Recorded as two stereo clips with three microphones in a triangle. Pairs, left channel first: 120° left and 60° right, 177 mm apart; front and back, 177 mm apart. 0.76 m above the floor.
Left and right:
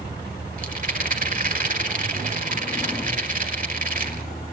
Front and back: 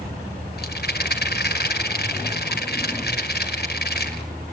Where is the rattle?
20° right, 2 m.